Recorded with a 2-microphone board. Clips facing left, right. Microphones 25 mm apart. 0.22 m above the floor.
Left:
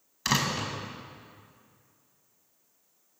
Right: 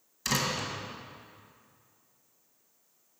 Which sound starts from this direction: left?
A door slam, at 0.2 s.